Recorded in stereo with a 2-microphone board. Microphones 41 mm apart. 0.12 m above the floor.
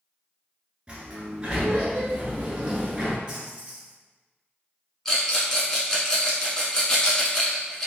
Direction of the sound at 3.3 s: 20° right (ahead or behind).